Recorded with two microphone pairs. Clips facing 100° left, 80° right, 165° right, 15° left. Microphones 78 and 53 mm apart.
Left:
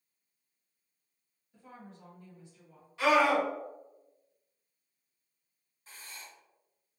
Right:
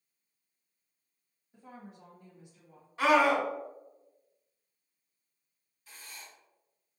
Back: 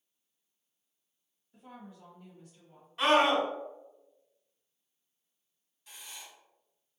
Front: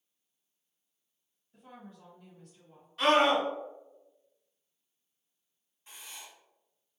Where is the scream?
105° right, 1.6 m.